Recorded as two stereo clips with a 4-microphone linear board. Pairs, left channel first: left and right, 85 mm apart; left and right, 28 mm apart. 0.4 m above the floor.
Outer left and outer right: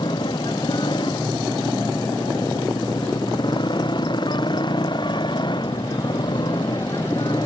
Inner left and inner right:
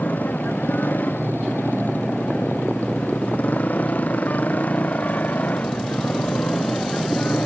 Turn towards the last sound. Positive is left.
turn(degrees=65)  # may be behind; listen again after turning